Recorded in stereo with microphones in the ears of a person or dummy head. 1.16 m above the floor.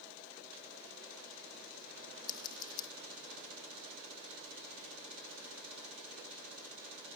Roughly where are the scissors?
Left.